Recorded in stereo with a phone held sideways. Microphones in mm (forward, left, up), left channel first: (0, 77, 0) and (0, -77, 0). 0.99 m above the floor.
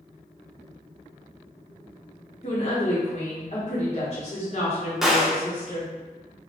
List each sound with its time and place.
2.4 s a woman speaking: 45° left (ahead or behind), 1.0 m
5.0 s a gunshot: 5° right (ahead or behind), 0.6 m